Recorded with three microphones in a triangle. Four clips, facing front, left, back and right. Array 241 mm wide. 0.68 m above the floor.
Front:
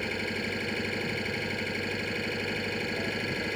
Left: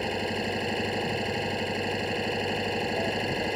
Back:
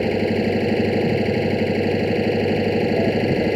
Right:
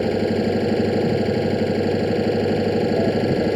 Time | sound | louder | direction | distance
0.0 | an engine running | right 10 dB, back 14 dB | 140° right | ?